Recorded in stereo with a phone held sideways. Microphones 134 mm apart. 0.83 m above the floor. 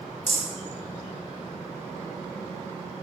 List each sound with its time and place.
0.3 s a rattle: 50° right (ahead or behind), 1.9 m